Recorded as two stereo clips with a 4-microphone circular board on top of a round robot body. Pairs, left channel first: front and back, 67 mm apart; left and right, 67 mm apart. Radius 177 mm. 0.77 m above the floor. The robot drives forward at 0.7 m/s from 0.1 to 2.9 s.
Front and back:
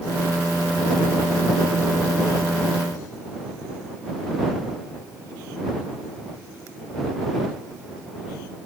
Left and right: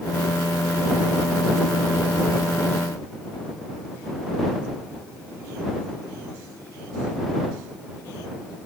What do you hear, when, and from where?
Only background noise.